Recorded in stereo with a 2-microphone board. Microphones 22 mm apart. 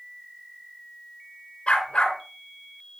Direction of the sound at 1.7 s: 55° left (ahead or behind).